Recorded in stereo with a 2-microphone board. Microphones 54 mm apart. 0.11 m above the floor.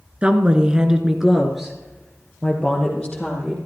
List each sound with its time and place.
0.2 s a woman speaking: 20° right (ahead or behind), 1.4 m; by 3.6 s 10° left (ahead or behind), 3.5 m